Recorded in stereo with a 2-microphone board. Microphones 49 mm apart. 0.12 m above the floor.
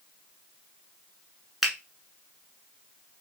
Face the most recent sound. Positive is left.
turn(degrees=0)  # may be behind; listen again after turning